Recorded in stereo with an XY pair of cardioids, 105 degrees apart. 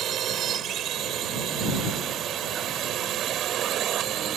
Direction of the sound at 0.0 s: 65° right.